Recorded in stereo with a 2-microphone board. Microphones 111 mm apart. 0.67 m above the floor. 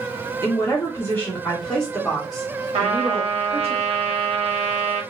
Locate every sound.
0.4 s a woman speaking: 30° left (ahead or behind), 1.2 m; by 3.7 s 10° right (ahead or behind), 2 m
2.7 s a trumpet: 70° right (ahead or behind), 1.2 m